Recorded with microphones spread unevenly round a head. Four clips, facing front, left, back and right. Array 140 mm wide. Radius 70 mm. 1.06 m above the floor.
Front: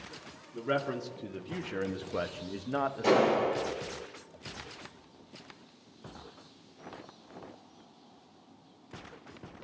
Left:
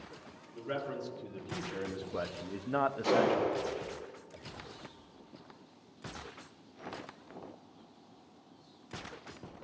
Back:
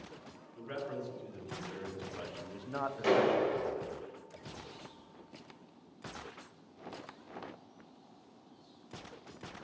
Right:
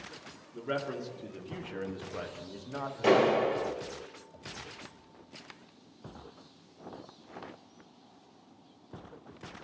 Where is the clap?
90° right, 3.5 m.